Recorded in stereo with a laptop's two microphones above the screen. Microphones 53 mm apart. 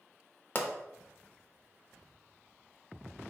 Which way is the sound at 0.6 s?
40° left (ahead or behind).